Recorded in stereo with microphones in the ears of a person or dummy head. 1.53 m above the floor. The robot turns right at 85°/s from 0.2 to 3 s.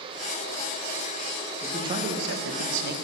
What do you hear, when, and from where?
1.6 s a man speaking: 175° right, 1.3 m; by 2.9 s 60° right, 1.3 m